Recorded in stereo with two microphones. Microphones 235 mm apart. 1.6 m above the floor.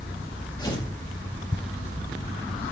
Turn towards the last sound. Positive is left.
turn(degrees=20)  # may be behind; listen again after turning